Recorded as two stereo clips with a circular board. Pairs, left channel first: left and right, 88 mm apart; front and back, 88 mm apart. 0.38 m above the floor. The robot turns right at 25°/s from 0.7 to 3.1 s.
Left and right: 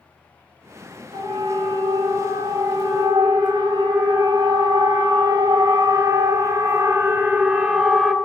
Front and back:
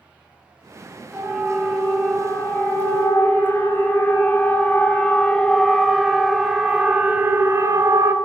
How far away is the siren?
About 5 m.